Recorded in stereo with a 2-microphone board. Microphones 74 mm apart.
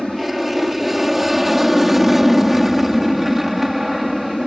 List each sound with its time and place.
0.0 s an aircraft: centre (ahead or behind); by 4.5 s 5° right (ahead or behind)